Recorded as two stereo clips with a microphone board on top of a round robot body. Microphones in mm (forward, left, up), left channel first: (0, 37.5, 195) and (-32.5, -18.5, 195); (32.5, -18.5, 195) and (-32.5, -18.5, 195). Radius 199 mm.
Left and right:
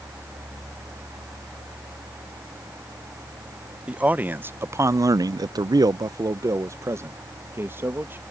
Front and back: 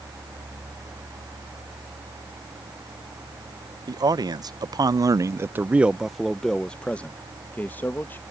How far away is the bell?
I don't hear a bell.